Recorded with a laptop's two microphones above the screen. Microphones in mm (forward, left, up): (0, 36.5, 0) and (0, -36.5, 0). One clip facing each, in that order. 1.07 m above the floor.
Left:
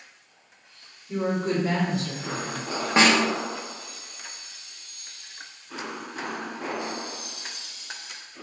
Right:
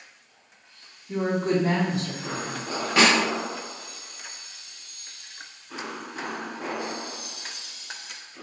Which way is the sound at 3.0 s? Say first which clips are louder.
Left 1 dB; 30° left (ahead or behind).